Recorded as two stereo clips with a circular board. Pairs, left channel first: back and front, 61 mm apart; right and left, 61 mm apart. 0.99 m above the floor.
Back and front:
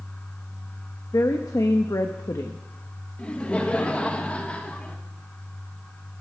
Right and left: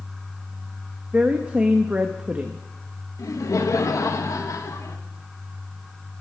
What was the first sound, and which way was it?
A woman speaking, 160° left.